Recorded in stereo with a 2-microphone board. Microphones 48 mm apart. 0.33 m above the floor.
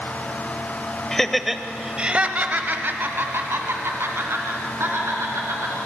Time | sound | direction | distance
1.1 | laughter | 10° left (ahead or behind) | 1.2 m